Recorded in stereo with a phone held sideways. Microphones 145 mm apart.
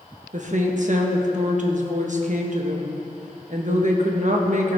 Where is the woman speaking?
60° right (ahead or behind), 1.1 m.